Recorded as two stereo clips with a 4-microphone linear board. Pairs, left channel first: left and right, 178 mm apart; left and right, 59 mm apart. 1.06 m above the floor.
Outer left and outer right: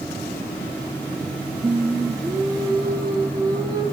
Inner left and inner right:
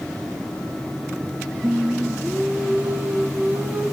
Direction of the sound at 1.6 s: 20° right (ahead or behind).